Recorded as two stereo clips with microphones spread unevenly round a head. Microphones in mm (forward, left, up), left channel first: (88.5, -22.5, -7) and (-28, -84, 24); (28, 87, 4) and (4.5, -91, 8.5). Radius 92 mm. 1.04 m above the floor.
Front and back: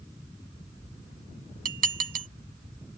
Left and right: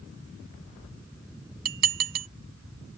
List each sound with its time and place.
1.6 s dishes clattering: 145° right